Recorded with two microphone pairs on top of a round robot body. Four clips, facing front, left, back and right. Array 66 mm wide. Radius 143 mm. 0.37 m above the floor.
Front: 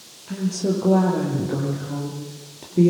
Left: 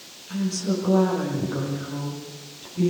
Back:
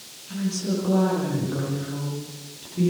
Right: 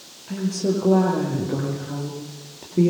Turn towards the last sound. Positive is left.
turn(degrees=-50)